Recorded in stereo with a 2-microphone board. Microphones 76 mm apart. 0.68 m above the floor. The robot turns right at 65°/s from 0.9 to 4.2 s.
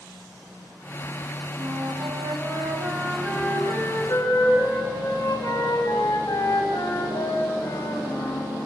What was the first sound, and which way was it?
A flute, 120° right.